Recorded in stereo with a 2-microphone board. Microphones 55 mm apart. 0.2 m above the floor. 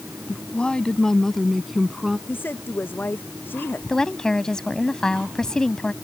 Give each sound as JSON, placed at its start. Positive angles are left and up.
{"t": 0.3, "sound": "a woman speaking", "side_deg": 25}
{"t": 2.3, "sound": "a woman speaking", "side_deg": 40}
{"t": 3.9, "sound": "a woman speaking", "side_deg": 15}